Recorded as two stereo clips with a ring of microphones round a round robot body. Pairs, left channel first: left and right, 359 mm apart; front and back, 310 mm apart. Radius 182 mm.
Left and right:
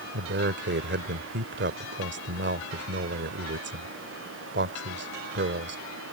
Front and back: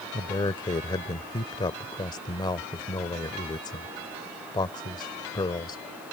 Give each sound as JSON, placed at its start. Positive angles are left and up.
{"t": 0.1, "sound": "a man speaking", "azimuth_deg": -65}